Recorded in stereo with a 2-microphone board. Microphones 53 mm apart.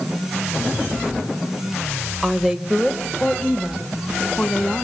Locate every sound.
2.2 s a woman speaking: 10° right (ahead or behind), 0.9 m; by 4.8 s 10° left (ahead or behind), 2.5 m